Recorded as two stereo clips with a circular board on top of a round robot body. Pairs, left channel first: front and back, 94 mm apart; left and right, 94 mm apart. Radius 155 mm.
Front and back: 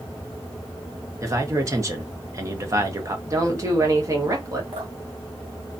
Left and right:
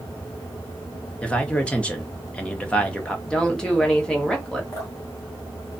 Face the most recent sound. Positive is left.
turn(degrees=145)